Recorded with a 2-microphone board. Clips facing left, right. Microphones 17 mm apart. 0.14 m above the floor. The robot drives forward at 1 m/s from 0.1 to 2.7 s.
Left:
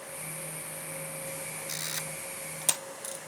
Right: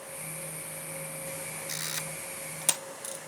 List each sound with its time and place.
1.7 s a camera shutter: 60° right (ahead or behind), 0.6 m; by 3.2 s 30° right (ahead or behind), 1.1 m